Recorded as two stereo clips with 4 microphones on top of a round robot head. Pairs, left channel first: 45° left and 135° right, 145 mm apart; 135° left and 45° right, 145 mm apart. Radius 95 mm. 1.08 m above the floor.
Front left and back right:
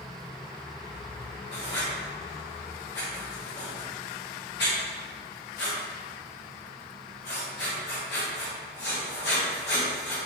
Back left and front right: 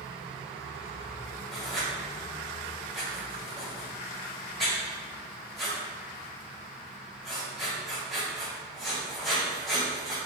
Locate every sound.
1.5 s writing: 45° left, 1.1 m